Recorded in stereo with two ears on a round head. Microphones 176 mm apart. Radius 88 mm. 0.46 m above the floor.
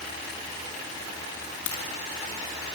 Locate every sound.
1.7 s a crack: 80° left, 7 m